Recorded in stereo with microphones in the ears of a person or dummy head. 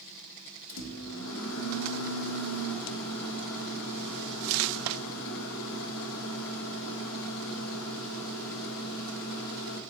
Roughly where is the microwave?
Left.